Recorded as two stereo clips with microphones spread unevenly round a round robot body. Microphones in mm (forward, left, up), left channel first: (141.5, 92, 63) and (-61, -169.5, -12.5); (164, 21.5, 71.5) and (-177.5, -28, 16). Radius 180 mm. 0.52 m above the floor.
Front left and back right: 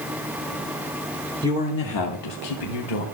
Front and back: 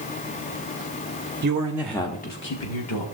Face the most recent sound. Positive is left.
turn(degrees=50)